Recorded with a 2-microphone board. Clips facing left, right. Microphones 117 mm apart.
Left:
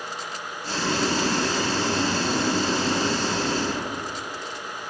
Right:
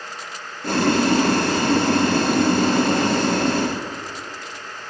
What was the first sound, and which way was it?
Boiling, 55° right (ahead or behind).